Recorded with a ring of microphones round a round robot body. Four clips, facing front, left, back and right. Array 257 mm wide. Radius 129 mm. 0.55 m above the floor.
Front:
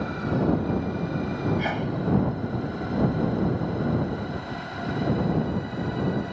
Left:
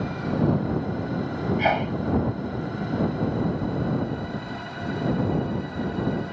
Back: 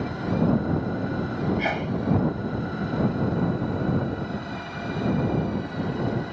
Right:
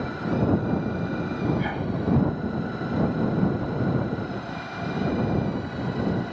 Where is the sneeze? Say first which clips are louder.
Left 5 dB, back 1 dB; 100° left.